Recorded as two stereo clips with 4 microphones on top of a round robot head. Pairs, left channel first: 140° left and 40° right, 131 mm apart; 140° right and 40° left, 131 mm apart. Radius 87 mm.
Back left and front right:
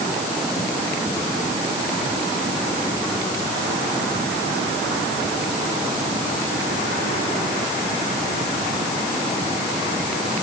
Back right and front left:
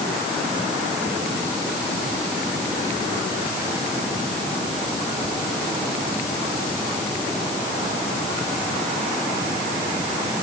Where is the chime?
I don't hear a chime.